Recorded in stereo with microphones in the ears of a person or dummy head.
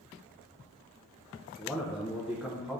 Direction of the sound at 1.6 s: 10° right (ahead or behind).